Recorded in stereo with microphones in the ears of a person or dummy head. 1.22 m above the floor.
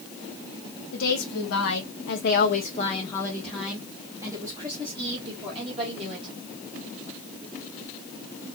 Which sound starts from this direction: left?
A woman speaking, at 0.9 s.